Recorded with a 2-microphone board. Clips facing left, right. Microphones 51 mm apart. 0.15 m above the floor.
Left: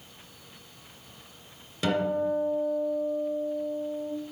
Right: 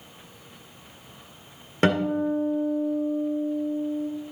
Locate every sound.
1.8 s a guitar: 50° right (ahead or behind), 1.9 m